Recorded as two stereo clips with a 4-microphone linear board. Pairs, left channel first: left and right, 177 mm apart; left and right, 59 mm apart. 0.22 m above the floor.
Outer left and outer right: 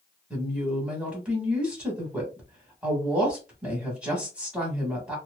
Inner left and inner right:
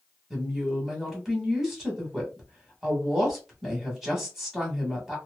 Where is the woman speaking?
5° right (ahead or behind), 1.2 m.